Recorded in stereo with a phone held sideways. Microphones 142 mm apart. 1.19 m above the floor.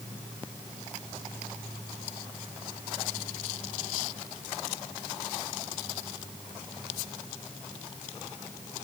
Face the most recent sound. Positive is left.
No sound to turn to.